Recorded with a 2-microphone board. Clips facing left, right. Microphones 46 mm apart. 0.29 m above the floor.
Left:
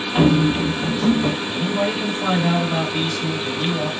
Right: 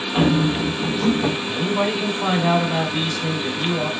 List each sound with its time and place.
0.1 s running footsteps: 5° left (ahead or behind), 1.2 m; by 1.3 s 10° right (ahead or behind), 0.6 m
1.5 s a man speaking: 10° right (ahead or behind), 1.3 m